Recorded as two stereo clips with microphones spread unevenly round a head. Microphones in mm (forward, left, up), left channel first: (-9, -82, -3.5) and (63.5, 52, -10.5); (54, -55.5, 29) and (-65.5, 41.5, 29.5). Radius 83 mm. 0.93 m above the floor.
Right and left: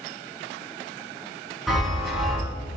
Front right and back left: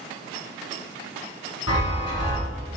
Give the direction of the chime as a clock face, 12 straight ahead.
1 o'clock.